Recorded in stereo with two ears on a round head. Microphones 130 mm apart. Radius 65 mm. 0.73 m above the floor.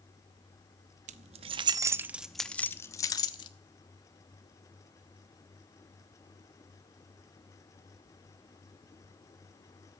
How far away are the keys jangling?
About 0.9 m.